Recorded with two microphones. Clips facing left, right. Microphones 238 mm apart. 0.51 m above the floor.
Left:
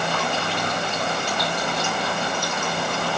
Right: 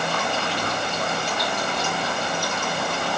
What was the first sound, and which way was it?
Only background noise.